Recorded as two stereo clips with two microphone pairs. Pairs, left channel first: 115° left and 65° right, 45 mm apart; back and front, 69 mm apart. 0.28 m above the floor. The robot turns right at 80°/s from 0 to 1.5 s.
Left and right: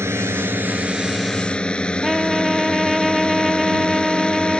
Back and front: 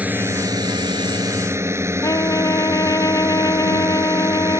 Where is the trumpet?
150° right.